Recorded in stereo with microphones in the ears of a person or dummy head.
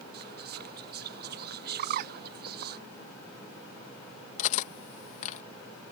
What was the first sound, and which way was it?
Whispering, 45° right (ahead or behind).